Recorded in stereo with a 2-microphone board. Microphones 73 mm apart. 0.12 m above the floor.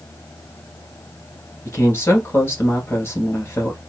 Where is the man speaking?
35° left (ahead or behind), 2 m.